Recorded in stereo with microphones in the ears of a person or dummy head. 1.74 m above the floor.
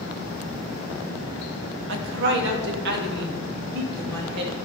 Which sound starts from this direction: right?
A woman speaking, at 1.9 s.